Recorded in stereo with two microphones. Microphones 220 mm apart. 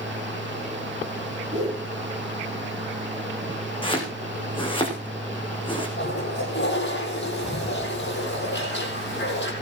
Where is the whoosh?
35° right (ahead or behind), 7.5 m.